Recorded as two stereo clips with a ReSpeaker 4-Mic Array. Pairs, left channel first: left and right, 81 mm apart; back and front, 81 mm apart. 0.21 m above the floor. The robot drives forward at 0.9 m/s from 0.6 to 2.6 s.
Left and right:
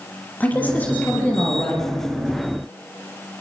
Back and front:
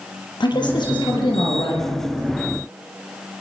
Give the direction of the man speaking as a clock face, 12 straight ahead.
7 o'clock.